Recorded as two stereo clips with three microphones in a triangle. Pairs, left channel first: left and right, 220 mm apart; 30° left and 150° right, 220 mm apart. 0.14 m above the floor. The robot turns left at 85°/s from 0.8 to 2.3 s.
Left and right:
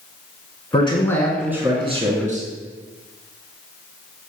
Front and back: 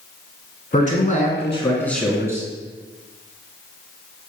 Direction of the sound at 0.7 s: 45° left.